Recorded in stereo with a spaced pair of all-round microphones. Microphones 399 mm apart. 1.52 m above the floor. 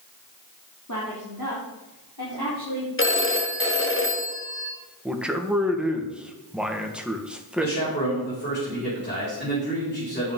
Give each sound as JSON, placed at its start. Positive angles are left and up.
{"t": 0.9, "sound": "a woman speaking", "side_deg": 45, "distance_m": 3.0}
{"t": 3.0, "sound": "a phone ringing", "side_deg": 30, "distance_m": 1.3}
{"t": 5.0, "sound": "a man speaking", "side_deg": 0, "distance_m": 1.6}
{"t": 7.6, "sound": "a man speaking", "side_deg": 25, "distance_m": 5.0}